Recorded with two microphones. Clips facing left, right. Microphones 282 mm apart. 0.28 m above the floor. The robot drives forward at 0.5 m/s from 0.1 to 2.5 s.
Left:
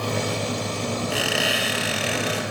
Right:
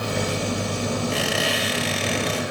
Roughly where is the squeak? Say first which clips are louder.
Right 1 dB; centre.